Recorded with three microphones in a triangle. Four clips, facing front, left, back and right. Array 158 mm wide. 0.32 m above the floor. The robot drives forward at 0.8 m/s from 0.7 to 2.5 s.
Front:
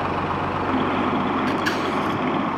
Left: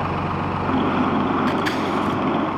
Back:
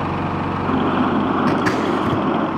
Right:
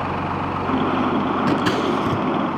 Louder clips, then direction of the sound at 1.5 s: Right 2 dB, back 5 dB; 120° right.